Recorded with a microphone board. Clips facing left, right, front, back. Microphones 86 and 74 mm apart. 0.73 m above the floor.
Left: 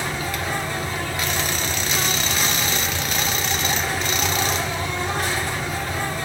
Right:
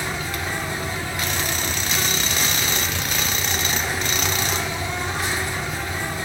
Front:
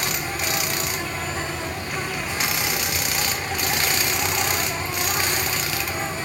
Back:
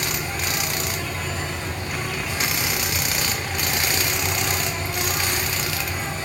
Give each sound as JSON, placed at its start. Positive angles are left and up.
{"t": 0.0, "sound": "an insect", "azimuth_deg": 60, "distance_m": 5.0}